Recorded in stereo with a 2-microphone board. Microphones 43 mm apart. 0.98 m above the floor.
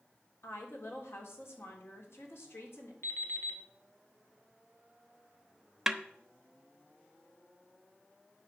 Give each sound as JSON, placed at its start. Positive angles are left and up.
{"t": 0.4, "sound": "a woman speaking", "side_deg": 75, "distance_m": 3.5}
{"t": 3.0, "sound": "an alarm clock", "side_deg": 70, "distance_m": 2.0}
{"t": 5.9, "sound": "a snare drum", "side_deg": -10, "distance_m": 0.9}